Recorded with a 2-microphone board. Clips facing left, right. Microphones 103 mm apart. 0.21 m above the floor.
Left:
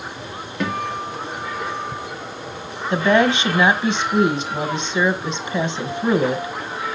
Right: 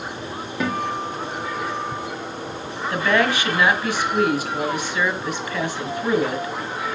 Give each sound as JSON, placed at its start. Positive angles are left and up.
{"t": 0.6, "sound": "a guitar", "side_deg": -5, "distance_m": 4.5}
{"t": 2.9, "sound": "a woman speaking", "side_deg": 25, "distance_m": 1.5}